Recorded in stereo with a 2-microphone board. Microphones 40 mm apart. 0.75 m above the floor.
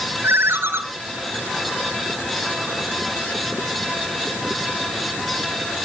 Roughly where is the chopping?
I don't hear chopping.